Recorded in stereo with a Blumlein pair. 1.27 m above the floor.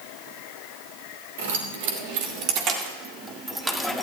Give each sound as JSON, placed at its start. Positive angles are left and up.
{"t": 1.4, "sound": "keys jangling", "azimuth_deg": -55, "distance_m": 2.5}